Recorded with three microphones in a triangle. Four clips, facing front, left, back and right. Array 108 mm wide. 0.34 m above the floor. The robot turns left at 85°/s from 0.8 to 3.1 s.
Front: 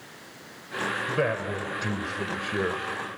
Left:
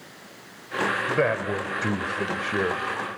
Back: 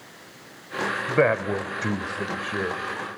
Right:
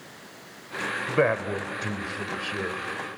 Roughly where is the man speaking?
Behind right.